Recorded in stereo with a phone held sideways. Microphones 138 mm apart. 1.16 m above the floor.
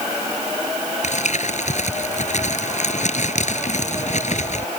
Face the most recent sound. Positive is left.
turn(degrees=60)  # may be behind; listen again after turning